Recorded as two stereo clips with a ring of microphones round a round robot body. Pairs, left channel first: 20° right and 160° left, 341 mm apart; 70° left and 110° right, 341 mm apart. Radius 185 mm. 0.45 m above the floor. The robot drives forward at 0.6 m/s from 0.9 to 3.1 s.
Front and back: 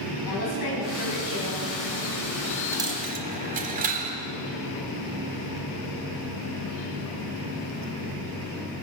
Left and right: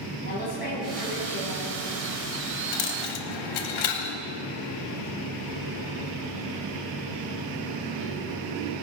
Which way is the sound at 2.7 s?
75° left.